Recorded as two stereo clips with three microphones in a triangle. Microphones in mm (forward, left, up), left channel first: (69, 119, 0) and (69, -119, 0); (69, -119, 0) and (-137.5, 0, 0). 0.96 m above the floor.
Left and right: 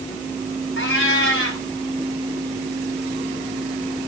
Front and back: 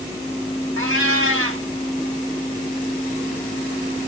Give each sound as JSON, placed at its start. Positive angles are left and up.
{"t": 0.8, "sound": "a cat meowing", "azimuth_deg": 125, "distance_m": 2.5}